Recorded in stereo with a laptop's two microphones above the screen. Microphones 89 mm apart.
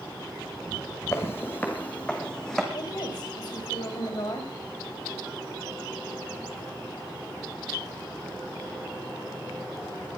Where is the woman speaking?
55° left (ahead or behind), 6 m.